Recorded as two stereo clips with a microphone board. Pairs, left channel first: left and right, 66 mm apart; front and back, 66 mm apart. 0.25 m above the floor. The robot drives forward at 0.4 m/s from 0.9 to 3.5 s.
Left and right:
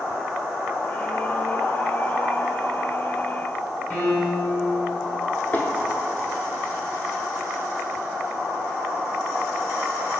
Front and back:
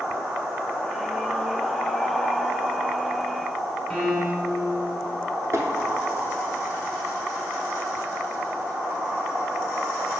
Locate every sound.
3.9 s a piano: 85° left, 1.4 m
5.5 s tapping: 145° left, 0.5 m